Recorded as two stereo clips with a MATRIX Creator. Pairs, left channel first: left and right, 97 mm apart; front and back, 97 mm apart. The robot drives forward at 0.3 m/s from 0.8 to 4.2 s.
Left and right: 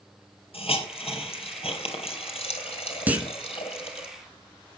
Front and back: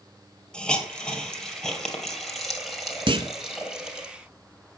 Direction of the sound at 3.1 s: 160° right.